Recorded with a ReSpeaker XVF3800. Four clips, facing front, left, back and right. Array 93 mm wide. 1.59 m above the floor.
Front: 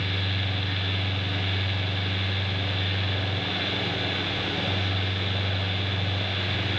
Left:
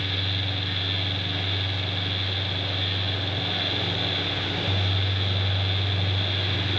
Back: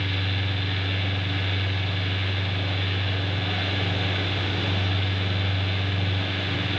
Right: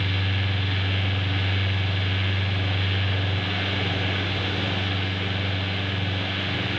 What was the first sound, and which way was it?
Only background noise.